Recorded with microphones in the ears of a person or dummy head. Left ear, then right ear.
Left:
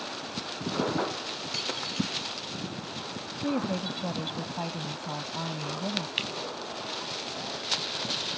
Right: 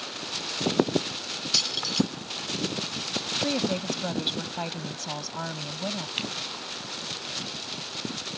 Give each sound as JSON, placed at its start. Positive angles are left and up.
{"t": 1.5, "sound": "keys jangling", "side_deg": -30}
{"t": 3.4, "sound": "a woman speaking", "side_deg": -50}
{"t": 6.2, "sound": "a finger snap", "side_deg": 5}